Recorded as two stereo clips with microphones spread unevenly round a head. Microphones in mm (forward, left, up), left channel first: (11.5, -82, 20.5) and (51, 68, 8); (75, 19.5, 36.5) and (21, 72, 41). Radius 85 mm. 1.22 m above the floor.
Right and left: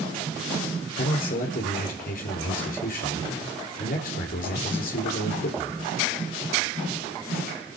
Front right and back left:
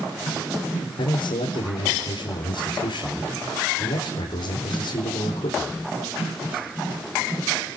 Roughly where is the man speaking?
Right.